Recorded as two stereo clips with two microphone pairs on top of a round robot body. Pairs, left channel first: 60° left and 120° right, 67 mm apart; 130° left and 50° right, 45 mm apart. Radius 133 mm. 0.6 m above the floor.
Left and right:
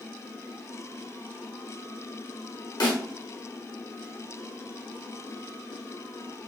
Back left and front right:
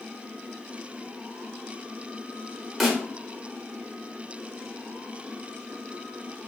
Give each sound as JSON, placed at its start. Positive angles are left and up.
{"t": 2.8, "sound": "a snare drum", "azimuth_deg": 45, "distance_m": 1.2}